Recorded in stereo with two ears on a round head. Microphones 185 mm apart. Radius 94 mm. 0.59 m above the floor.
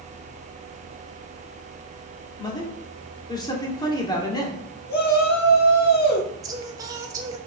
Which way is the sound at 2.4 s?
20° left (ahead or behind).